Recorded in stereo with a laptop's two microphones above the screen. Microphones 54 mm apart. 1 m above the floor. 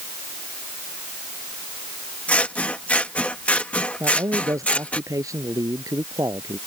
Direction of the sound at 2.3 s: 25° left (ahead or behind).